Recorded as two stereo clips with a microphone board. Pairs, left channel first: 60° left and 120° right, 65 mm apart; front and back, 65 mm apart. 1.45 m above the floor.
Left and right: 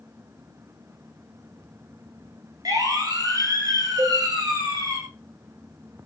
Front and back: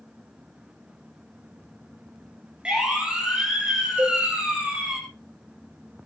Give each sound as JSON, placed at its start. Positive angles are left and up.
{"t": 2.6, "sound": "a siren", "azimuth_deg": -105, "distance_m": 9.0}
{"t": 4.0, "sound": "a cowbell", "azimuth_deg": -130, "distance_m": 4.5}